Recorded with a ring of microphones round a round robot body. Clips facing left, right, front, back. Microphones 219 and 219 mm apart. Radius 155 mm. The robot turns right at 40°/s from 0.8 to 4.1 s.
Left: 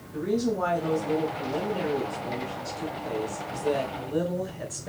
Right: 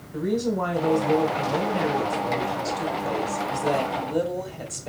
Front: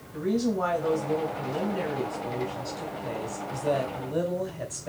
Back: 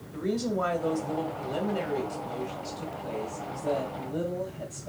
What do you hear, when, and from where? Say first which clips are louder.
0.1 s a woman speaking: right 1 dB, front 3 dB; 160° left, 2 m; by 4.9 s 70° right, 2 m